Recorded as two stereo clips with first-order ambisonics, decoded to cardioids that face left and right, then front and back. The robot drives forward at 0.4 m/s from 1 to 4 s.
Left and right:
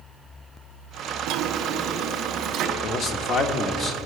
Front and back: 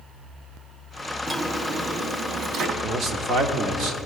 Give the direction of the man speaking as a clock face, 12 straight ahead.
8 o'clock.